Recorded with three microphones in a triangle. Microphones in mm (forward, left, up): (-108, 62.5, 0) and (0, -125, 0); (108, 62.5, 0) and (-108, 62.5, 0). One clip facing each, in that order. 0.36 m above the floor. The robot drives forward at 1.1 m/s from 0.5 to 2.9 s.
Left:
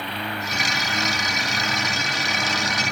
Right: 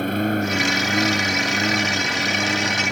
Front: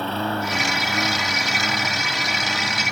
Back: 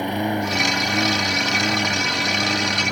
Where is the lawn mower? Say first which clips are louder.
Right 11 dB, back 3 dB; 105° right; by 2.9 s 125° right.